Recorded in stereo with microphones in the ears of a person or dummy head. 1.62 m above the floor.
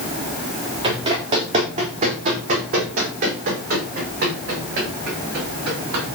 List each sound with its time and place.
0.8 s running footsteps: 30° right (ahead or behind), 4 m; by 6.0 s 55° right (ahead or behind), 8.5 m